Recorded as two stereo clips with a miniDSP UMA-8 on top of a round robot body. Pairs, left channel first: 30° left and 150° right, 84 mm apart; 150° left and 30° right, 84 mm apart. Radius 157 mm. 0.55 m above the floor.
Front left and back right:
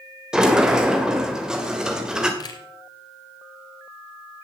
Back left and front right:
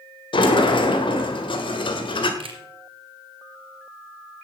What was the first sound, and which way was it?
A sliding door, 130° left.